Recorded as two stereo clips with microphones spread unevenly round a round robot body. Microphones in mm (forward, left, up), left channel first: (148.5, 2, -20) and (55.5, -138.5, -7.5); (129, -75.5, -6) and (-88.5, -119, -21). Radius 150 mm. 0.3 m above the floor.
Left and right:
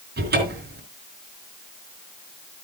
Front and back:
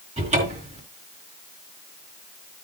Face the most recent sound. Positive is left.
turn(degrees=-110)